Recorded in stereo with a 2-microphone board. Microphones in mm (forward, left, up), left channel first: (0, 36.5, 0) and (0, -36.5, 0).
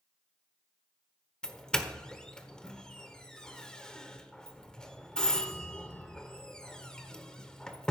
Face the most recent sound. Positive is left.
turn(degrees=10)  # may be behind; listen again after turning